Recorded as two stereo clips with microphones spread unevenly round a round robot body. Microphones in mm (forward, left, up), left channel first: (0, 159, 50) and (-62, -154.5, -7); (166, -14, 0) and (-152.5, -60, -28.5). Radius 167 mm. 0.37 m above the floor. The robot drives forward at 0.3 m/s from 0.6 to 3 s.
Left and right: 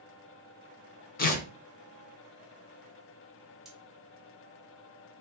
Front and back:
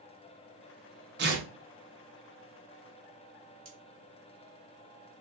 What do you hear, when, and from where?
1.2 s tearing paper: 145° left, 0.5 m; by 1.5 s 150° left, 0.6 m
3.6 s cutlery clinking: 175° left, 1.1 m